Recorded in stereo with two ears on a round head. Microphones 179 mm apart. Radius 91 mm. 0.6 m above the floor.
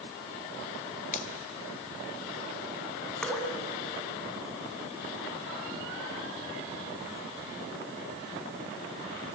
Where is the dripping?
5° left (ahead or behind), 2.5 m.